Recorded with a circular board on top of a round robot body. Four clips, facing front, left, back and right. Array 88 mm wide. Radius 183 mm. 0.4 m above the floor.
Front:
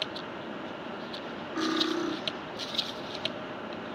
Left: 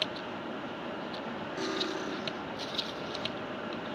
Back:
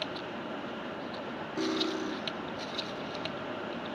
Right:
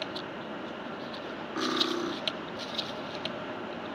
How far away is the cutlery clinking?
About 3 m.